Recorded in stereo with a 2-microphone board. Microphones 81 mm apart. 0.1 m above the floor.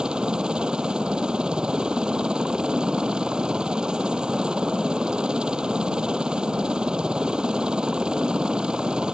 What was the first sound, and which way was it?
A helicopter, 10° right (ahead or behind).